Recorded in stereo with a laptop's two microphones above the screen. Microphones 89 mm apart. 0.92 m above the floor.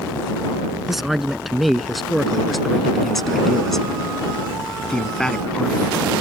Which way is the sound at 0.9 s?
5° right (ahead or behind).